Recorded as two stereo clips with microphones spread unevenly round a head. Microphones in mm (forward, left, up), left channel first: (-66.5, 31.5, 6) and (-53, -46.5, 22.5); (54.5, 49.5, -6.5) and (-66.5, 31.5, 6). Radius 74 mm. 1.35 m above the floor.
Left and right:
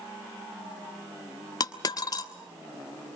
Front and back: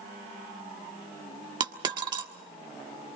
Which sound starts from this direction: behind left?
A dropped coin, at 1.6 s.